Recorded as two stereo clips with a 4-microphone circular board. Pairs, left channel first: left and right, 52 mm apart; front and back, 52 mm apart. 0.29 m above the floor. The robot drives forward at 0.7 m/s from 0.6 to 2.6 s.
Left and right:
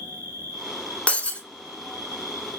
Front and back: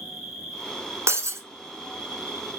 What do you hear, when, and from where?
0.0 s an insect: 90° right, 3 m; by 2.6 s 120° right, 3 m
1.1 s breaking glass: 155° left, 0.7 m; by 1.4 s 160° left, 1.0 m